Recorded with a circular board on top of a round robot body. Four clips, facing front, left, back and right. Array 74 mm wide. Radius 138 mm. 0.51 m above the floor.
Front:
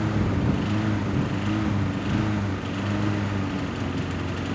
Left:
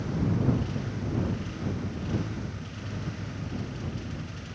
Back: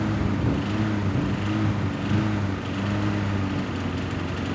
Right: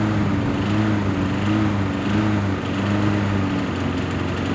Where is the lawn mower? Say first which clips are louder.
Right 7 dB, even; 90° right.